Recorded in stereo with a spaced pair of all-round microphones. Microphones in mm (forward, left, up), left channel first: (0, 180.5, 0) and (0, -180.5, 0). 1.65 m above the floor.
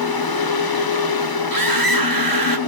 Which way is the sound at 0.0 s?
70° left (ahead or behind).